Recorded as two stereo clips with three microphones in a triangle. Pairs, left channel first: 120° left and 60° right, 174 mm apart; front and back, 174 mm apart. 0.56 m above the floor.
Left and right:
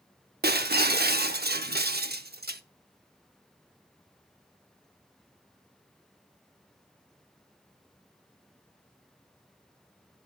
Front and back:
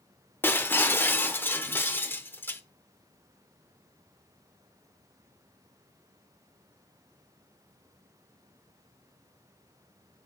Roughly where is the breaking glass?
Right.